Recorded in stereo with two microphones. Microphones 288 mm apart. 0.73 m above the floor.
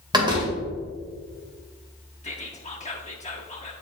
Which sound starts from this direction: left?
Whispering, at 2.2 s.